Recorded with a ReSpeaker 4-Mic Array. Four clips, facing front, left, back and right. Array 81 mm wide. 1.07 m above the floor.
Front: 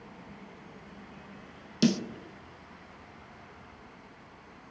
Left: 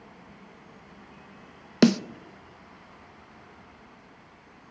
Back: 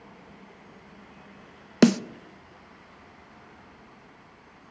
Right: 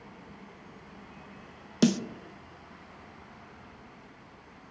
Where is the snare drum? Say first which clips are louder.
Left 5 dB, back 7 dB; 150° left, 0.5 m.